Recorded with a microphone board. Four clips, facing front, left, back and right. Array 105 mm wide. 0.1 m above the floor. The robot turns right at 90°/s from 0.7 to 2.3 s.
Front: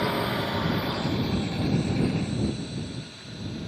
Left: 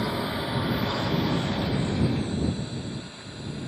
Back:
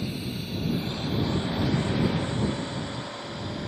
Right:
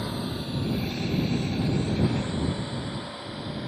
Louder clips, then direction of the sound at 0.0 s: Left 4 dB, front 7 dB; 15° left.